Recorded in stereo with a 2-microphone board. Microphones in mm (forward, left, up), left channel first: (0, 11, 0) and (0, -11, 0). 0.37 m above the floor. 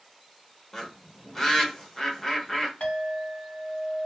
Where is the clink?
60° left (ahead or behind), 1.7 m.